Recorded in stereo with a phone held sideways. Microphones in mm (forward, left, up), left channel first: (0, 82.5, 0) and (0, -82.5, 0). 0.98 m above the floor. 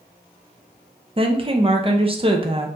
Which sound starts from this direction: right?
A woman speaking, at 1.2 s.